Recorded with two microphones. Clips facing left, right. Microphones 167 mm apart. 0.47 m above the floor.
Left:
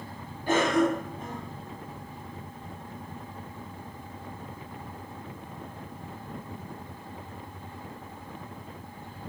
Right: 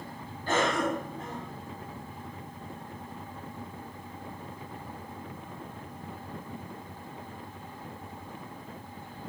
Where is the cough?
15° left (ahead or behind), 1.2 m.